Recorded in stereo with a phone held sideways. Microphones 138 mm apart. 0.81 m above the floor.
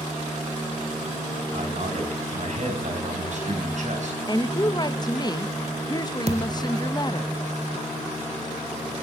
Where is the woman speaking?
30° left (ahead or behind), 0.6 m.